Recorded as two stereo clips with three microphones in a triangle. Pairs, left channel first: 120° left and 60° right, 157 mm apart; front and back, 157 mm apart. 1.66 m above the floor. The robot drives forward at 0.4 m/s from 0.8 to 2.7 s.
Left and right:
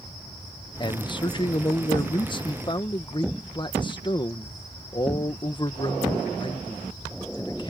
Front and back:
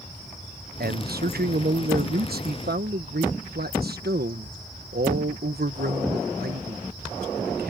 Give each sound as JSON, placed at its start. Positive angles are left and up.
{"t": 0.8, "sound": "a man speaking", "azimuth_deg": 180}